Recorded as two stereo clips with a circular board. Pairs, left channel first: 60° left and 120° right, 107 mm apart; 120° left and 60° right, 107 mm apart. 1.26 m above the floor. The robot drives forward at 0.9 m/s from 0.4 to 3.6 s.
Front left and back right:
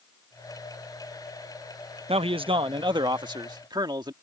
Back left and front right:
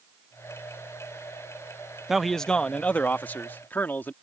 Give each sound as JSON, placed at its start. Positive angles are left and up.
{"t": 2.1, "sound": "a man speaking", "azimuth_deg": -145}